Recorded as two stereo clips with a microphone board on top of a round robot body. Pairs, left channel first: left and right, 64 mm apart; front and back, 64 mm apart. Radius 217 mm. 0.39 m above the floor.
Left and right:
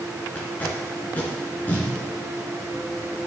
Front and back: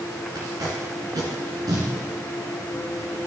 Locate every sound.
0.3 s tape being pulled: 155° left, 2 m